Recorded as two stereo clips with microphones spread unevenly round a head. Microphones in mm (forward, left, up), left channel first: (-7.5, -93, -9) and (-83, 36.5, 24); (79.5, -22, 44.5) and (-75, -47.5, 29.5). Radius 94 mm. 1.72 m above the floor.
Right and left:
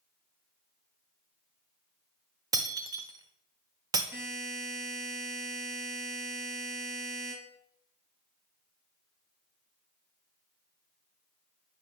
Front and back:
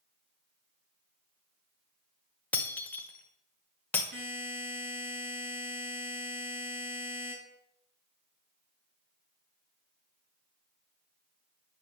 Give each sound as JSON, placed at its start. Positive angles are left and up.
{"t": 2.5, "sound": "breaking glass", "azimuth_deg": 80, "distance_m": 1.0}
{"t": 4.1, "sound": "a buzzer", "azimuth_deg": -165, "distance_m": 7.0}